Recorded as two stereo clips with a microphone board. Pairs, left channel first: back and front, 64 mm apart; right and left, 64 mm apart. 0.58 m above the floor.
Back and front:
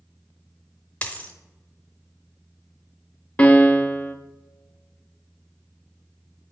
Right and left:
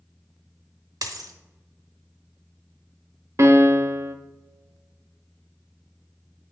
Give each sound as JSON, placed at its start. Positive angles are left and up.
{"t": 1.0, "sound": "a dropped coin", "azimuth_deg": 110, "distance_m": 1.1}
{"t": 3.4, "sound": "a piano", "azimuth_deg": 115, "distance_m": 0.7}